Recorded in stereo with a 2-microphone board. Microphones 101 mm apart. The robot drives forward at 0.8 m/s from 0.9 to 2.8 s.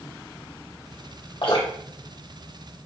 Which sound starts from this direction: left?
Dripping, at 1.4 s.